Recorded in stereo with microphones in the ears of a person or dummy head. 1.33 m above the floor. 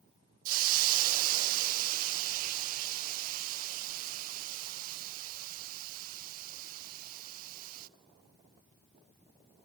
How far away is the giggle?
I don't hear a giggle.